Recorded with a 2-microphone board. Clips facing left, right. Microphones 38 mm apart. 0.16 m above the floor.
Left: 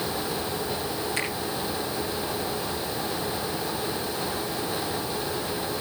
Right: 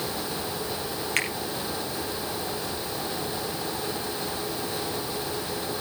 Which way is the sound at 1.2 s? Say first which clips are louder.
Right 4 dB; 65° right (ahead or behind).